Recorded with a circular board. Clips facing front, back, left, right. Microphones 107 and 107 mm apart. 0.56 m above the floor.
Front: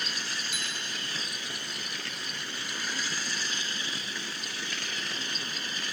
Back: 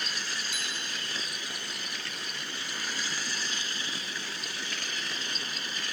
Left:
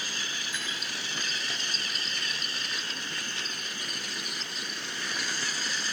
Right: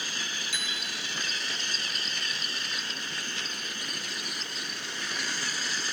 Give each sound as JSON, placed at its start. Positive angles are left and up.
{"t": 0.5, "sound": "a bicycle bell", "azimuth_deg": -90, "distance_m": 3.5}